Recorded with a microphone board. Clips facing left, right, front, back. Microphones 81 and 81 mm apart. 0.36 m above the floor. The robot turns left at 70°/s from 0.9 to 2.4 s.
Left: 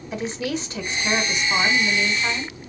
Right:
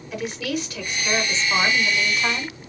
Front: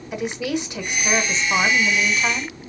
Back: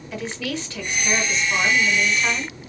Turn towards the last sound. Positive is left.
turn(degrees=-50)